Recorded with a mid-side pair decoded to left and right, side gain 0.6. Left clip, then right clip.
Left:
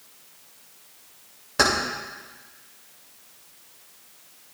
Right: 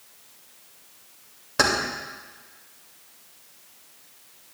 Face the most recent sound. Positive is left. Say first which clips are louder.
# left 1 dB
turn(degrees=-10)